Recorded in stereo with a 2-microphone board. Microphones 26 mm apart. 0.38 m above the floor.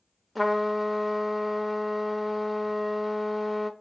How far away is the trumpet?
About 0.7 m.